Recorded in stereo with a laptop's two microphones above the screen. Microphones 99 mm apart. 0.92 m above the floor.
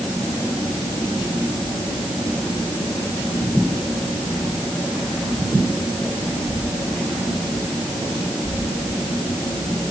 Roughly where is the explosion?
I don't hear an explosion.